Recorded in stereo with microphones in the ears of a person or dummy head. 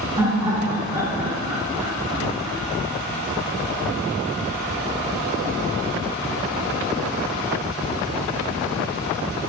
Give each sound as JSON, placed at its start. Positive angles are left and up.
{"t": 0.2, "sound": "laughter", "side_deg": -25, "distance_m": 2.0}